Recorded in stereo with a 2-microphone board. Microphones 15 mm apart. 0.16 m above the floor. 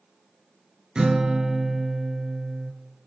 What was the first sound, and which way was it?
A guitar, 60° right (ahead or behind).